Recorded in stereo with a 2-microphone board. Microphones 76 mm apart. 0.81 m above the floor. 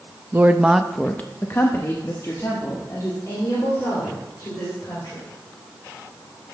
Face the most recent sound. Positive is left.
turn(degrees=45)  # may be behind; listen again after turning